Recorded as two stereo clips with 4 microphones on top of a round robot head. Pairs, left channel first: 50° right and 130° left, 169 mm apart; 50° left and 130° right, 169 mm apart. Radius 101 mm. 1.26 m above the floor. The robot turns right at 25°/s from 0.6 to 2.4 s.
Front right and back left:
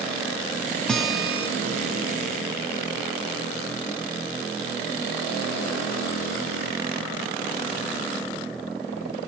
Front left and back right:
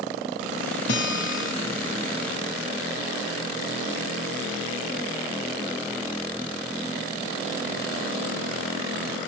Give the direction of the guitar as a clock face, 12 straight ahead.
11 o'clock.